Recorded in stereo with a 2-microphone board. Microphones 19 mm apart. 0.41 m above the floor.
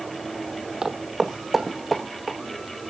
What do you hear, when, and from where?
0.8 s footsteps: 30° right (ahead or behind), 1.0 m; by 2.4 s centre (ahead or behind), 3 m